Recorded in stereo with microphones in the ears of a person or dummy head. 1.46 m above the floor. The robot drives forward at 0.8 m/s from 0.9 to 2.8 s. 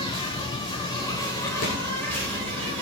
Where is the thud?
45° left (ahead or behind), 1.5 m.